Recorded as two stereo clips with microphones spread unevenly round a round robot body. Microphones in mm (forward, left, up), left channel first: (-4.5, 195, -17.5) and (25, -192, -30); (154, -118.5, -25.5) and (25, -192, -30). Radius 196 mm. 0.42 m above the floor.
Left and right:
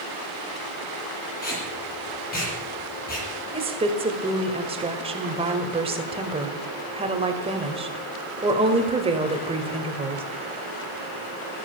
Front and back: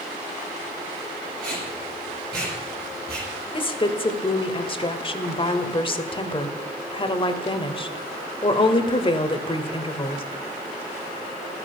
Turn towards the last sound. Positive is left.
turn(degrees=-15)